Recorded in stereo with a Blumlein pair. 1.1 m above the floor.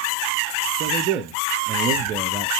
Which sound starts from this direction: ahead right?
A man speaking, at 0.8 s.